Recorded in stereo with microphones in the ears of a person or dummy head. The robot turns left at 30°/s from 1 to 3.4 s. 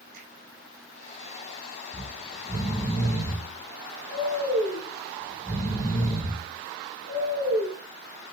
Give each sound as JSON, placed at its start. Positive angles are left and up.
{"t": 0.1, "sound": "a finger snap", "side_deg": -55, "distance_m": 5.5}
{"t": 1.9, "sound": "snoring", "azimuth_deg": -155, "distance_m": 6.5}